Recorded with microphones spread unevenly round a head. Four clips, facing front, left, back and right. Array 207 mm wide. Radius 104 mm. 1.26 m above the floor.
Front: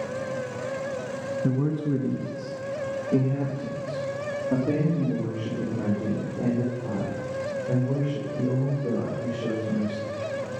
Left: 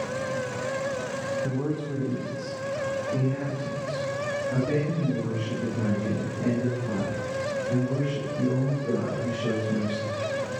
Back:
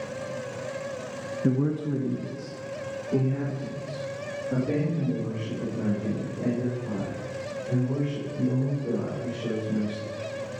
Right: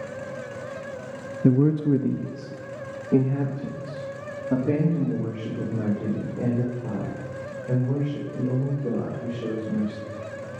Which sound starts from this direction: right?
A man speaking, at 1.4 s.